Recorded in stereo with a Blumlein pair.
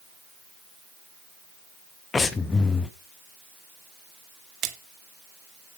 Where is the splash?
30° right, 1.7 m.